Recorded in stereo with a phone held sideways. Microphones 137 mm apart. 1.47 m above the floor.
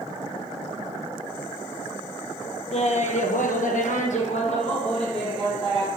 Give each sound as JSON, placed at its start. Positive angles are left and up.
{"t": 2.7, "sound": "laughter", "side_deg": 50, "distance_m": 1.0}